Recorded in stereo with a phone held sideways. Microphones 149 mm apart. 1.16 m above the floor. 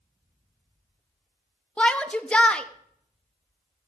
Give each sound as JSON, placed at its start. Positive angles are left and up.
{"t": 1.8, "sound": "a shout", "side_deg": 5, "distance_m": 0.7}